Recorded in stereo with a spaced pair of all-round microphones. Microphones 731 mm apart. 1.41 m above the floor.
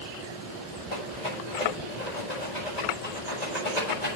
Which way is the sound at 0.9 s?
65° left (ahead or behind).